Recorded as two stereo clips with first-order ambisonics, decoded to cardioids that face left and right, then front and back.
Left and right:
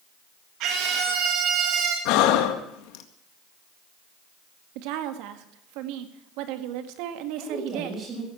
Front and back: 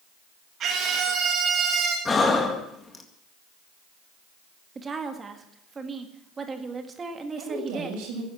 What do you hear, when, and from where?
0.6 s a scream: 120° right, 2 m
2.0 s breathing: 75° left, 1.8 m
4.8 s a woman speaking: 105° right, 1.9 m
7.4 s a woman speaking: 155° right, 6.5 m